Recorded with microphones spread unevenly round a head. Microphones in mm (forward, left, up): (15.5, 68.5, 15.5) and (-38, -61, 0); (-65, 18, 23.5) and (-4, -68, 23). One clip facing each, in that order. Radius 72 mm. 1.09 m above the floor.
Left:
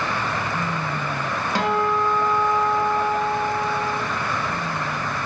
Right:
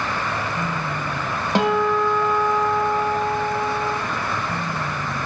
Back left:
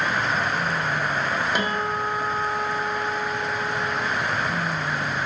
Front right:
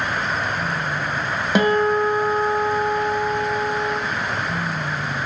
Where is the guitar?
45° right, 1.1 m.